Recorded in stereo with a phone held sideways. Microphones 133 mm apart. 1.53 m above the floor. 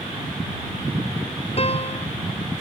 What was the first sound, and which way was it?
A piano, 45° left (ahead or behind).